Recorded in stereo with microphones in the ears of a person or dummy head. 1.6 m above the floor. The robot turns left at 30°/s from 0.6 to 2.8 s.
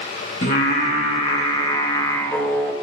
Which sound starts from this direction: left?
Singing, at 0.4 s.